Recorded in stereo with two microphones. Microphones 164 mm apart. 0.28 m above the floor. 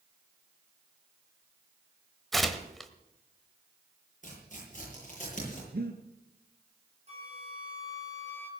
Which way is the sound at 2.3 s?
Centre (ahead or behind).